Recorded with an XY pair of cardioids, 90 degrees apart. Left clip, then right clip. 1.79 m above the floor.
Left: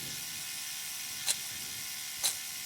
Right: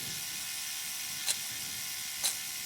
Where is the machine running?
10° right.